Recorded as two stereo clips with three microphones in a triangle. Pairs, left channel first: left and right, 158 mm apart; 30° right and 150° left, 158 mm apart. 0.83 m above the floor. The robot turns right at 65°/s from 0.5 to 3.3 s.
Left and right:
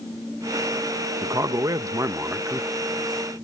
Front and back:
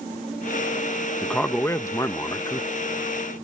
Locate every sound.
1.2 s a man speaking: 110° right; by 2.7 s 15° right